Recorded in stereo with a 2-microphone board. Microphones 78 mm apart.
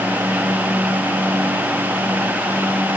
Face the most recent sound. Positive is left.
No sound to turn to.